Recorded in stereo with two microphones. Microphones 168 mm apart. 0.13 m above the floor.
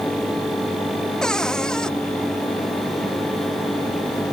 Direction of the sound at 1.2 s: 5° left (ahead or behind).